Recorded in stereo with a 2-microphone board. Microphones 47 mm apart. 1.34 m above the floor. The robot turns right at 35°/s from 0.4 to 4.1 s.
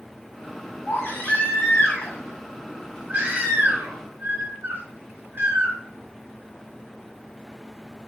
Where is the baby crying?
125° left, 2 m; by 5.8 s 120° right, 2 m.